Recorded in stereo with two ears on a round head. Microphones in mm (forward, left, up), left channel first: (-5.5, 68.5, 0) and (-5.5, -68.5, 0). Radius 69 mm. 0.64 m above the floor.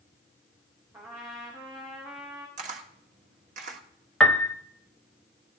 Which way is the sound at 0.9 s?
20° right (ahead or behind).